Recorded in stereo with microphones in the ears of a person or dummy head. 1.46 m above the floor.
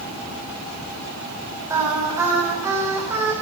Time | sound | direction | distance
1.7 | singing | 15° right (ahead or behind) | 9 m